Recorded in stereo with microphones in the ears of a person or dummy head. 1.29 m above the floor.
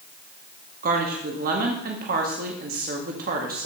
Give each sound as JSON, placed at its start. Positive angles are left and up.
{"t": 0.8, "sound": "a woman speaking", "side_deg": -50, "distance_m": 1.3}